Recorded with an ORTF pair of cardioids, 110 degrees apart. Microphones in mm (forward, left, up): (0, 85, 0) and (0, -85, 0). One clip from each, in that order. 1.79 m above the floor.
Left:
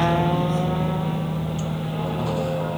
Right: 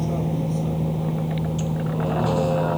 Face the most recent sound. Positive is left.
turn(degrees=-25)